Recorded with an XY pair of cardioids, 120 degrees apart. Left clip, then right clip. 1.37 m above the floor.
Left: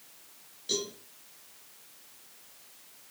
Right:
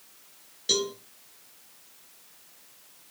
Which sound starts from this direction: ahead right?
A cowbell, at 0.7 s.